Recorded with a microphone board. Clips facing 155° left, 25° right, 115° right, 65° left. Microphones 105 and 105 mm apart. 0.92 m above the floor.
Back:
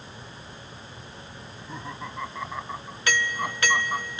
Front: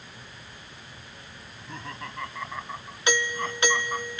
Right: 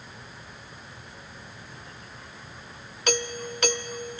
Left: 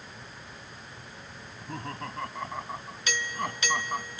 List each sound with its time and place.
1.4 s laughter: 75° left; by 4.1 s 85° left
3.1 s a doorbell: 90° right